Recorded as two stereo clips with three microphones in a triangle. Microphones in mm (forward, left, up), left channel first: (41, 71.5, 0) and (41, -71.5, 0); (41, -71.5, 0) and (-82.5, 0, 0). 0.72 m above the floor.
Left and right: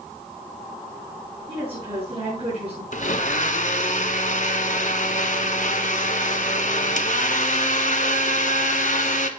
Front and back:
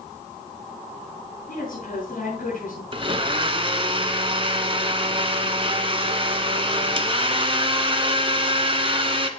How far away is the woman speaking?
About 8 m.